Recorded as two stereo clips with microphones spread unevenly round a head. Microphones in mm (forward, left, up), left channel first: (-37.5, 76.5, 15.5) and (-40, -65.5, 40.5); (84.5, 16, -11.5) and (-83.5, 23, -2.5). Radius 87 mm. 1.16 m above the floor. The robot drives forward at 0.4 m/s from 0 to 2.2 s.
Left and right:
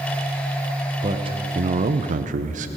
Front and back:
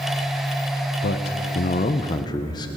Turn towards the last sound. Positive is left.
turn(degrees=-60)